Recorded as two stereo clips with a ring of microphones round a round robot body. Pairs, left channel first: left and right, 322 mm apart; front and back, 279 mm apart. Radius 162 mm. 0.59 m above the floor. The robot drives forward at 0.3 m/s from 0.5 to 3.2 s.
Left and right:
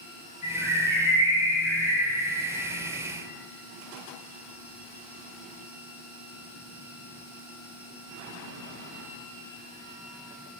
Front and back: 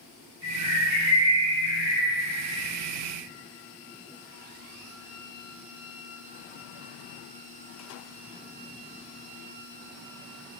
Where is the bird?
45° left, 1.5 m; by 2.1 s 75° left, 1.3 m.